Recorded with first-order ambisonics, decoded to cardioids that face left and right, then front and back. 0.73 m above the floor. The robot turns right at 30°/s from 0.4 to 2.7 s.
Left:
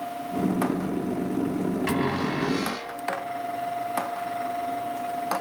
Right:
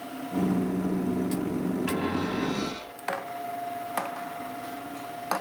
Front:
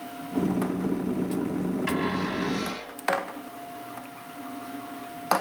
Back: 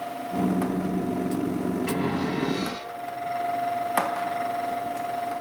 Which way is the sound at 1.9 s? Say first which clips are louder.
Left 4 dB, front 2 dB; 65° left.